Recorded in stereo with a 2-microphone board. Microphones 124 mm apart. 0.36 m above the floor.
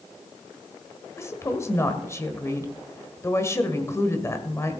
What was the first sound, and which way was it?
A woman speaking, 25° left (ahead or behind).